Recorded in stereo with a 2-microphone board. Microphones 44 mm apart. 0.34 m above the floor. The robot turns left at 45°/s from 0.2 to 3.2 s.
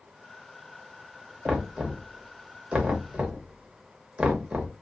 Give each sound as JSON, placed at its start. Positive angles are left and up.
{"t": 1.4, "sound": "knocking", "side_deg": -15, "distance_m": 0.7}